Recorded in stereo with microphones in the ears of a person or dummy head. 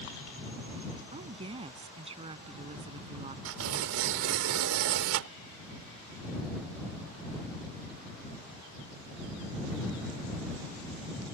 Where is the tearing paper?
85° right.